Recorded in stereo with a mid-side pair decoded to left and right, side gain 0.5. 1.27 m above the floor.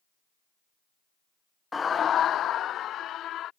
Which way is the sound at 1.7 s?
25° left.